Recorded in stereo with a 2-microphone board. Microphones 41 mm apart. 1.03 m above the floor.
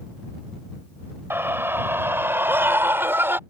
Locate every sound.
1.3 s a scream: 85° right; by 3.4 s 80° right